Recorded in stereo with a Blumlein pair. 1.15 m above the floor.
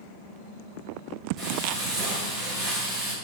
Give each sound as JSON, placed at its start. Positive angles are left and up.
{"t": 1.4, "sound": "frying", "azimuth_deg": -30, "distance_m": 5.5}